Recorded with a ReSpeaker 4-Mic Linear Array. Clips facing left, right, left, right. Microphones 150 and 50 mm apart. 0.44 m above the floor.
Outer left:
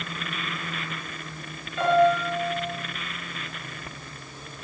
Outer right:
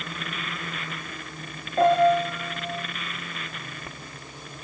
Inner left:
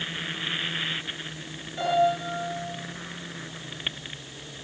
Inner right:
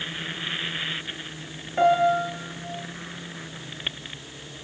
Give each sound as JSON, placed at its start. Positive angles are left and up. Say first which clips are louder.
{"t": 1.8, "sound": "a piano", "louder": "outer right 2 dB, inner right 4 dB", "side_deg": -45, "distance_m": 8.0}